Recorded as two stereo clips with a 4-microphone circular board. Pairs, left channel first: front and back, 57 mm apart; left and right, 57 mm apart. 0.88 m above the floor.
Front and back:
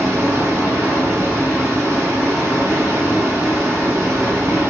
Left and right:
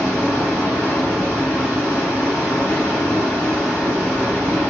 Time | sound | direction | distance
0.0 | running water | 160° left | 2.0 m